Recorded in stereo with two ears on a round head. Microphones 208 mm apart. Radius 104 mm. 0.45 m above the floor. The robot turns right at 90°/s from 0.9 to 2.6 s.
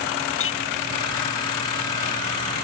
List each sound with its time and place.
0.4 s a clink: 60° left (ahead or behind)